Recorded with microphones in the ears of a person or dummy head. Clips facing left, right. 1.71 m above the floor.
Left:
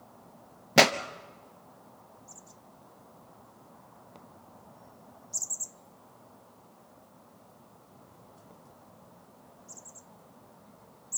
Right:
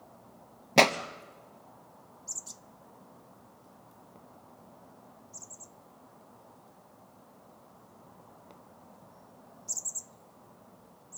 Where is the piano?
No piano in this recording.